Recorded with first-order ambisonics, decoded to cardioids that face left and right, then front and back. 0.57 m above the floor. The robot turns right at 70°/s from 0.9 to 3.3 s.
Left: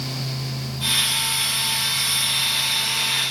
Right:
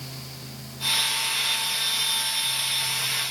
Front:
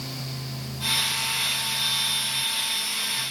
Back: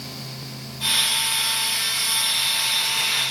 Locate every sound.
Only background noise.